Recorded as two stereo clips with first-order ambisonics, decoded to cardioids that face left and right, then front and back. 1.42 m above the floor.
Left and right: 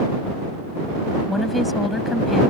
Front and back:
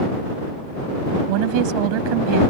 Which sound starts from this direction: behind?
A woman speaking, at 1.3 s.